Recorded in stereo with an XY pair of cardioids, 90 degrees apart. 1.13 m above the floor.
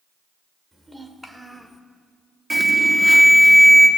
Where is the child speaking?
15° right, 2 m; by 1.8 s 5° right, 1.6 m.